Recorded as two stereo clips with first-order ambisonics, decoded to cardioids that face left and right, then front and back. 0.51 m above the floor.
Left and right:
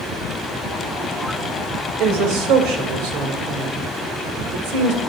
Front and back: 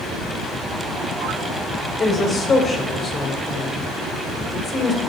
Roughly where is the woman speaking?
Ahead right.